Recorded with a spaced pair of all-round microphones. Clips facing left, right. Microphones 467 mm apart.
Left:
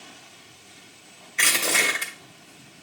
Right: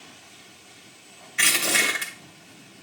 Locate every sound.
1.4 s crushing: 30° right (ahead or behind), 1.8 m